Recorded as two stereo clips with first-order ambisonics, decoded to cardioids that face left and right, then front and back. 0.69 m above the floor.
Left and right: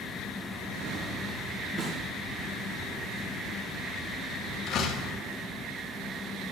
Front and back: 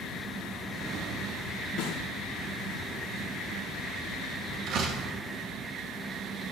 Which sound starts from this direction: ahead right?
A snare drum, at 1.8 s.